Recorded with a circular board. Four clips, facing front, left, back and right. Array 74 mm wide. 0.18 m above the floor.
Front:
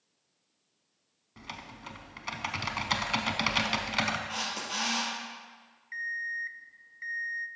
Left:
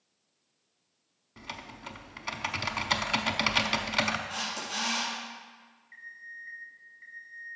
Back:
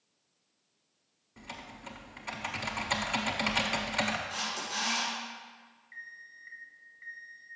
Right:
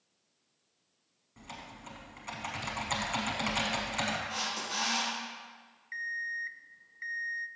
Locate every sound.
1.4 s typing on a keyboard: 55° left, 0.8 m
4.3 s a camera shutter: 15° left, 4 m
5.9 s an alarm clock: 55° right, 0.5 m